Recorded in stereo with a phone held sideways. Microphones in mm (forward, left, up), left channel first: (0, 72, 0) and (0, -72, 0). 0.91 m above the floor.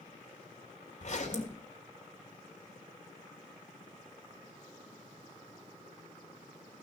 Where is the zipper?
55° left (ahead or behind), 3.5 m.